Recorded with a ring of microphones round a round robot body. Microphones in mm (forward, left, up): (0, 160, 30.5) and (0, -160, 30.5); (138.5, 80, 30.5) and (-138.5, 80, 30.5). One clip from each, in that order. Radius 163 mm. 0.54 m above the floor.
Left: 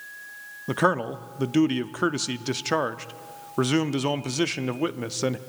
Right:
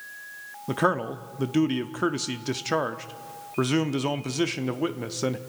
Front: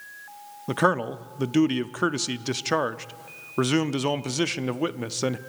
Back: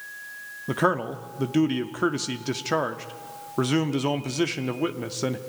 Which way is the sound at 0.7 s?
20° left.